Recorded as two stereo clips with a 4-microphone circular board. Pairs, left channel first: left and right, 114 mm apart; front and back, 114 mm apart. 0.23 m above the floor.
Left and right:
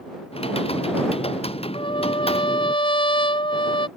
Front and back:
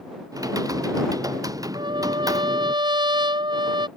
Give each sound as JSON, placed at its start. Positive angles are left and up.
{"t": 0.3, "sound": "typing on a keyboard", "azimuth_deg": 120}
{"t": 1.7, "sound": "a trumpet", "azimuth_deg": 130}